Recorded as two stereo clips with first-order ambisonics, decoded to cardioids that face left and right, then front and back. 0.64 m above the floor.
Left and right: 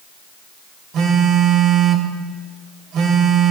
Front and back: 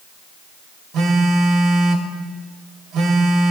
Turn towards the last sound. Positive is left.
turn(degrees=-135)